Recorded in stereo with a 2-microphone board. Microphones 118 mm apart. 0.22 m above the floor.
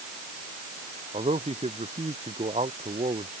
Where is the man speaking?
65° right (ahead or behind).